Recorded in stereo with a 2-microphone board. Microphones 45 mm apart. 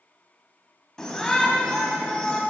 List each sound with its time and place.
1.0 s a shout: 10° left (ahead or behind), 1.2 m